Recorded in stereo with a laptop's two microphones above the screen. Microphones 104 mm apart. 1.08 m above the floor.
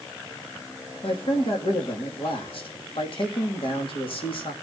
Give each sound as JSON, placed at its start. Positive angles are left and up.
{"t": 1.0, "sound": "a man speaking", "side_deg": 60, "distance_m": 2.0}